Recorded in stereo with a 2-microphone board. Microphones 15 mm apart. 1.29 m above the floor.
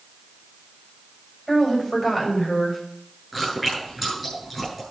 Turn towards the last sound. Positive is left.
turn(degrees=0)  # may be behind; listen again after turning